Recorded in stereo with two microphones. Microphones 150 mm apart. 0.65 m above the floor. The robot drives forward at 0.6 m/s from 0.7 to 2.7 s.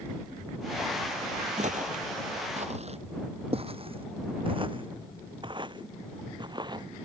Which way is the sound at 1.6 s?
50° right (ahead or behind).